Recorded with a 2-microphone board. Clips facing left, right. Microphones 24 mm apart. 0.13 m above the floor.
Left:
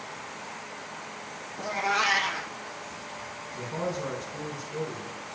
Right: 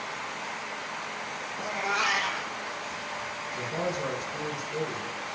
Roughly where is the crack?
No crack in this recording.